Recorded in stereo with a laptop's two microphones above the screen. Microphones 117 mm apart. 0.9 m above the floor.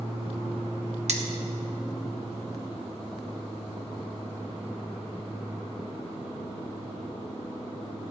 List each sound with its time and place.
1.1 s cutlery clinking: 70° right (ahead or behind), 1.1 m